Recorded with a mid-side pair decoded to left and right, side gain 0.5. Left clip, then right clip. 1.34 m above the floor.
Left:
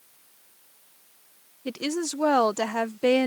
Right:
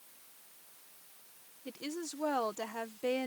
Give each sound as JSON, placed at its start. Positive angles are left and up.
{"t": 1.6, "sound": "a woman speaking", "azimuth_deg": 65}